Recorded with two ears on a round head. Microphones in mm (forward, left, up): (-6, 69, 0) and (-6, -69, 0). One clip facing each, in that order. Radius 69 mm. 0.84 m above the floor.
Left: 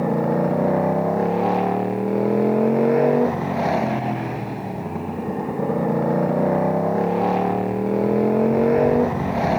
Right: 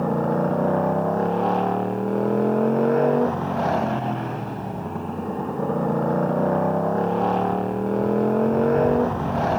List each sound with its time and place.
0.0 s a motorcycle: 10° left (ahead or behind)